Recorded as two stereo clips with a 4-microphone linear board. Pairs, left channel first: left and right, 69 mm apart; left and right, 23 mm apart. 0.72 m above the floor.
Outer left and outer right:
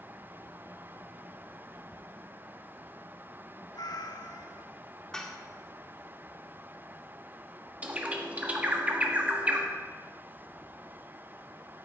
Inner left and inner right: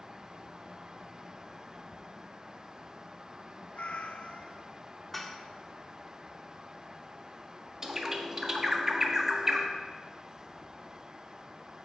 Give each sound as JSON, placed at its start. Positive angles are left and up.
{"t": 3.7, "sound": "a cat meowing", "side_deg": 75, "distance_m": 0.7}
{"t": 5.1, "sound": "dishes clattering", "side_deg": 10, "distance_m": 1.2}
{"t": 7.8, "sound": "a bird", "side_deg": -20, "distance_m": 1.2}